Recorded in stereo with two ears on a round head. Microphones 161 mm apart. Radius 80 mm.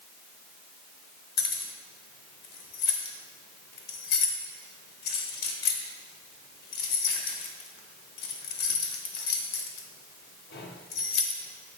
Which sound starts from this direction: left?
Keys jangling, at 1.4 s.